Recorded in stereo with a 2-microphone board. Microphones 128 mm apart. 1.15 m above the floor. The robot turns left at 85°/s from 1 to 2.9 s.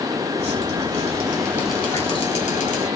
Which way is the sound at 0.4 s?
120° right.